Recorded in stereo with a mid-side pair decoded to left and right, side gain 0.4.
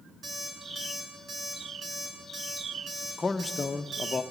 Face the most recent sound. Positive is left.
turn(degrees=30)